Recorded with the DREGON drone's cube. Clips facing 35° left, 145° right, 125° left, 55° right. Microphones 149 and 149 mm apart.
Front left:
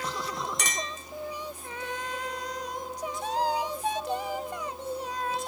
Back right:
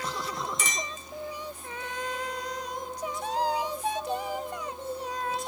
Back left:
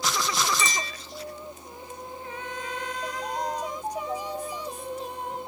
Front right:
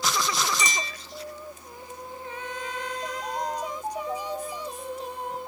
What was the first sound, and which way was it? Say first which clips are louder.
A clink: even, even; 15° left.